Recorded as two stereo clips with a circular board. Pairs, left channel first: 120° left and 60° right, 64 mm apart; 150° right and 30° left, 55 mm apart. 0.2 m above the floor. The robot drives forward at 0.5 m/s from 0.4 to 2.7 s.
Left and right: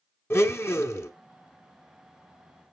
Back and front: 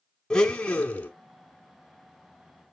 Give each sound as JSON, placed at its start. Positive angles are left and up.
{"t": 0.3, "sound": "a blender", "azimuth_deg": 145, "distance_m": 0.8}